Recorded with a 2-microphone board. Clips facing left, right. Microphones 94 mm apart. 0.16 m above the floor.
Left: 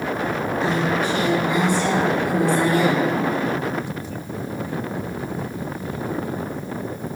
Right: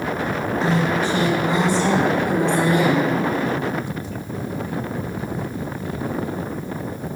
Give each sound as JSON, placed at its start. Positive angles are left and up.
{"t": 0.6, "sound": "a woman speaking", "side_deg": -35, "distance_m": 2.0}